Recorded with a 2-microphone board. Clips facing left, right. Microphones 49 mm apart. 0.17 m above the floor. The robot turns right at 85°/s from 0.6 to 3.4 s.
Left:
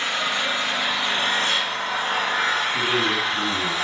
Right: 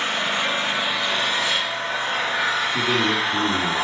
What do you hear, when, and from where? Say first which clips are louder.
0.0 s an engine running: right 1 dB; 35° right, 4 m; by 3.8 s 155° right, 4 m
2.7 s a man speaking: right 1 dB; 175° right, 3 m; by 3.7 s 115° right, 3 m